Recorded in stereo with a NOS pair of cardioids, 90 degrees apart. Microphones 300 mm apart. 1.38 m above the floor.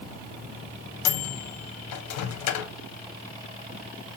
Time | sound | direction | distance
1.1 | a microwave | 65° left | 0.6 m